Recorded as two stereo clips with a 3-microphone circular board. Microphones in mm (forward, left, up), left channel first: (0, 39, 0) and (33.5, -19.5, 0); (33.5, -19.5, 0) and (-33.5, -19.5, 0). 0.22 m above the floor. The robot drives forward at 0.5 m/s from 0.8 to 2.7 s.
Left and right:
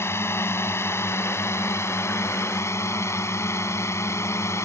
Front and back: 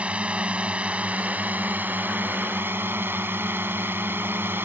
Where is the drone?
120° left; by 4.7 s 140° left.